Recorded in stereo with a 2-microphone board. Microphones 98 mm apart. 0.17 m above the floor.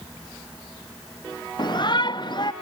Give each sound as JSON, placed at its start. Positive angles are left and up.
{"t": 1.6, "sound": "a shout", "side_deg": 50}